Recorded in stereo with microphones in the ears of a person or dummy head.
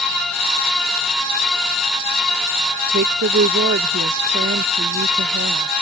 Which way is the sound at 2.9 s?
45° right (ahead or behind).